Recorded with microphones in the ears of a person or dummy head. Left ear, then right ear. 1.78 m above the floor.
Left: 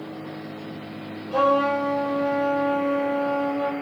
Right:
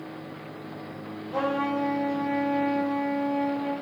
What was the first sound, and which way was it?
A trumpet, 30° left (ahead or behind).